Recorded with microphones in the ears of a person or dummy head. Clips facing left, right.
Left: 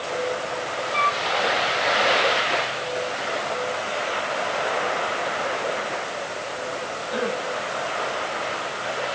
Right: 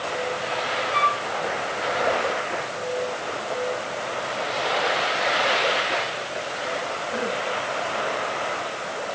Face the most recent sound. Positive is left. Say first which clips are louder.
# left 1 dB
turn(degrees=-40)  # may be behind; listen again after turning